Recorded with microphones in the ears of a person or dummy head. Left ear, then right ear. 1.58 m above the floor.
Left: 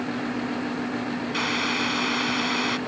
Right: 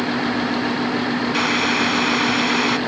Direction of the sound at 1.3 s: 15° right (ahead or behind).